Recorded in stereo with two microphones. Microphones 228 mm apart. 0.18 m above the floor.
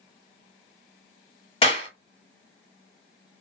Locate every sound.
1.6 s a clap: 25° left (ahead or behind), 1.4 m